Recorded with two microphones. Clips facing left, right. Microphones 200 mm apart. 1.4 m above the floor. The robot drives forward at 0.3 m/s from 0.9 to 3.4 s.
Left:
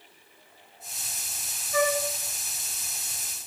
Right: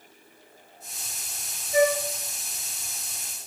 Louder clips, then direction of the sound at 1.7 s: Right 4 dB; 20° right (ahead or behind).